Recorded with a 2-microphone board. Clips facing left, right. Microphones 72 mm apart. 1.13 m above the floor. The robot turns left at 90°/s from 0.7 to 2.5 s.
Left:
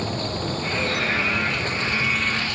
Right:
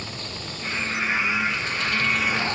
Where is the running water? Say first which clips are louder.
Left 9 dB; 135° left; by 2.6 s 30° right.